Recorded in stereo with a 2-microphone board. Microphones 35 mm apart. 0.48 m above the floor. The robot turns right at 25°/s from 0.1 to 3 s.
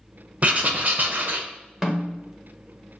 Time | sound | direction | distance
0.4 | writing | 45° right (ahead or behind) | 0.5 m
1.8 | a snare drum | 15° right (ahead or behind) | 1.0 m